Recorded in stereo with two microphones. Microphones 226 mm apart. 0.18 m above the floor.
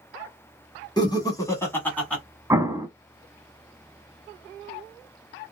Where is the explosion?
15° right (ahead or behind), 0.5 m.